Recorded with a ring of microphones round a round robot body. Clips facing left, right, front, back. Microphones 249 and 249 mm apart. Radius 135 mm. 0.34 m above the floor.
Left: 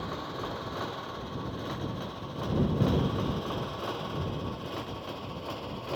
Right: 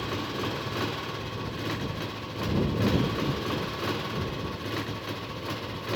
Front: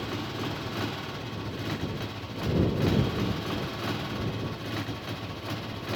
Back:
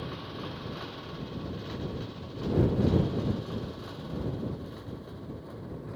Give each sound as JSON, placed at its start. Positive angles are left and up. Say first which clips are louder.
{"t": 0.0, "sound": "a motorcycle", "louder": "right 5 dB, front 5 dB", "azimuth_deg": -40}